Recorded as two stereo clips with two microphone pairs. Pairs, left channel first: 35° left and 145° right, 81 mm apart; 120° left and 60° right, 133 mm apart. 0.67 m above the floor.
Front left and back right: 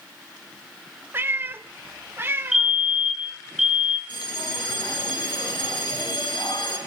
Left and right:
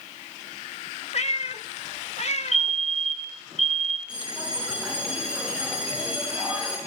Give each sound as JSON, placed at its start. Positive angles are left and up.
{"t": 1.1, "sound": "a cat meowing", "azimuth_deg": 155, "distance_m": 0.6}
{"t": 2.5, "sound": "a fire alarm", "azimuth_deg": 130, "distance_m": 3.0}
{"t": 4.1, "sound": "a bell", "azimuth_deg": 20, "distance_m": 5.5}